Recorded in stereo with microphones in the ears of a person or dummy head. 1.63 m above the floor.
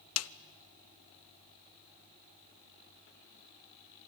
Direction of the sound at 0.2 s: 80° left.